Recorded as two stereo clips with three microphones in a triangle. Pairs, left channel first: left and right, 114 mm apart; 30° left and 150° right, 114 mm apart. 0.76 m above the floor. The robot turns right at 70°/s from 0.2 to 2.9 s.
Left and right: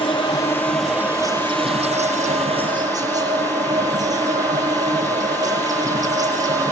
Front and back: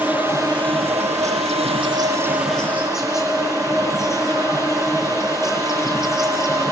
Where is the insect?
135° left, 8.5 m; by 6.7 s 35° right, 8.5 m.